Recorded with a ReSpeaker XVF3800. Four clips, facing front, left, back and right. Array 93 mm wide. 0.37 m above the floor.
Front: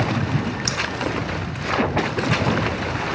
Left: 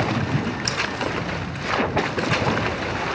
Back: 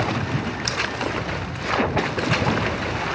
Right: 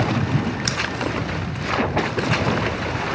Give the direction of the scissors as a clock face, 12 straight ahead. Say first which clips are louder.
Right 1 dB, even; 3 o'clock.